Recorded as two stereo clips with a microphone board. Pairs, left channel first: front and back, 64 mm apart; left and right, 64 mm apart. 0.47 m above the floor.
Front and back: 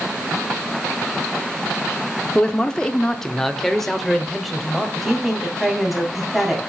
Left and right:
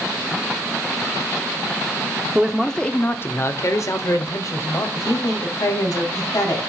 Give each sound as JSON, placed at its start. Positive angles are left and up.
{"t": 2.4, "sound": "a man speaking", "azimuth_deg": -40, "distance_m": 0.7}
{"t": 5.0, "sound": "a woman speaking", "azimuth_deg": 90, "distance_m": 2.5}